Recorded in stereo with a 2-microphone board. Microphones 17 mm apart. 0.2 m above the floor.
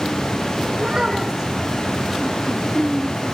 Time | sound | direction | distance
0.8 | a child speaking | 40° right (ahead or behind) | 7.5 m